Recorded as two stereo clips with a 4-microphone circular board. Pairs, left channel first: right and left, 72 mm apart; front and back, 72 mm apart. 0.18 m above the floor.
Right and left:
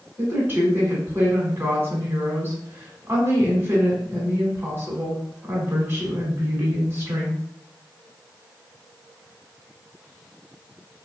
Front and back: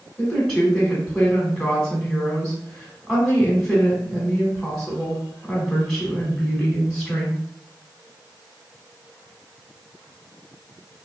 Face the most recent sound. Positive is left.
turn(degrees=80)